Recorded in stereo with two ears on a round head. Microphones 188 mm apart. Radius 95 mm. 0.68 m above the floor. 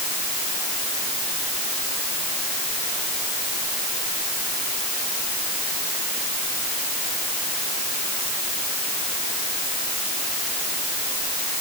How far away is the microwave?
I don't hear a microwave.